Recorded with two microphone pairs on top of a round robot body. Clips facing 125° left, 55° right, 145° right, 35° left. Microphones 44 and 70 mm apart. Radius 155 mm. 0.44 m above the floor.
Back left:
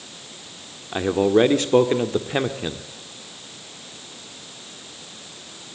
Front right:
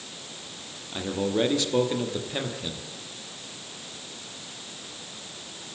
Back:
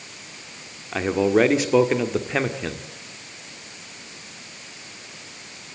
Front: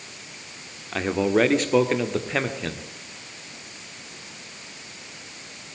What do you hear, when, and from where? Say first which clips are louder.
0.9 s a man speaking: back left 9 dB, back 2 dB; 135° left, 1.9 m